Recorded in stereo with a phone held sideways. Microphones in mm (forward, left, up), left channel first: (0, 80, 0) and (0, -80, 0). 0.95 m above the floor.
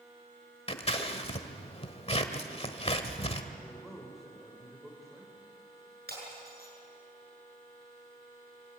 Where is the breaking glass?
80° right, 7.5 m.